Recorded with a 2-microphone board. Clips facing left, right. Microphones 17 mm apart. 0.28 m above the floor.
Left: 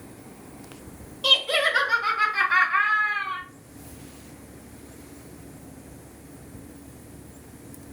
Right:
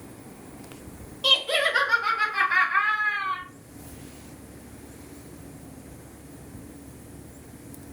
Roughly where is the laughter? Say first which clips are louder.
Left 1 dB; centre.